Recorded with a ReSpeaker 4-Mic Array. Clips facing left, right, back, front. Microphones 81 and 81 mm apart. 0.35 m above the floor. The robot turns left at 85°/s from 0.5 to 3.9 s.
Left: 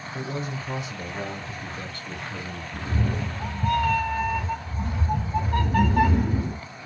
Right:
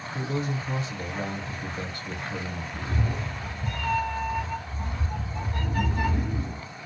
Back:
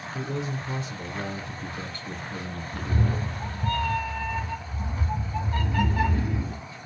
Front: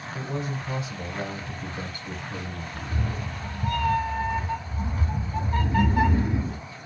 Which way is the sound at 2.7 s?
165° left.